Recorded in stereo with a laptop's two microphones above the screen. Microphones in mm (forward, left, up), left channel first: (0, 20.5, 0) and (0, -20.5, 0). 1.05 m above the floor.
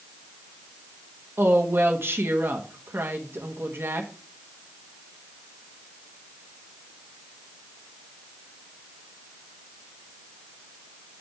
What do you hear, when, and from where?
1.4 s a woman speaking: 70° right (ahead or behind), 1.4 m